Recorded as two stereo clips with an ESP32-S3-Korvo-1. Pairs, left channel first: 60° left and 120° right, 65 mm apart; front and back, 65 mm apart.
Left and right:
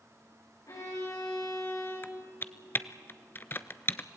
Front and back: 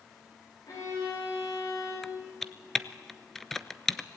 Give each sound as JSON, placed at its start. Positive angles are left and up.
{"t": 0.7, "sound": "a violin", "azimuth_deg": 25, "distance_m": 9.0}
{"t": 2.0, "sound": "typing on a keyboard", "azimuth_deg": 80, "distance_m": 0.7}